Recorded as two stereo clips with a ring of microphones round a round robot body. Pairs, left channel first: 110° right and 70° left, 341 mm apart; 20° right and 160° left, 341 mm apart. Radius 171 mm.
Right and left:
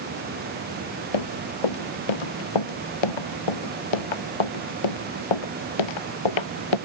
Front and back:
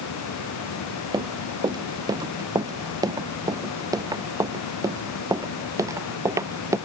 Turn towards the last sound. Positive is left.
turn(degrees=-120)